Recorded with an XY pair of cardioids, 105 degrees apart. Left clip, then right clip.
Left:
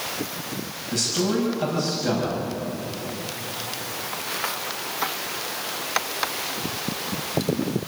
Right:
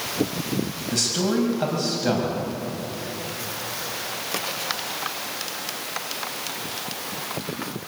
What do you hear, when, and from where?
0.9 s a man speaking: 25° right, 6.5 m